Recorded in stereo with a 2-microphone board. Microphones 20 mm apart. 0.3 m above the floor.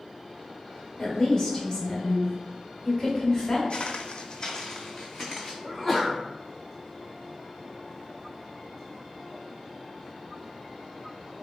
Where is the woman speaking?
25° left (ahead or behind), 1.3 m.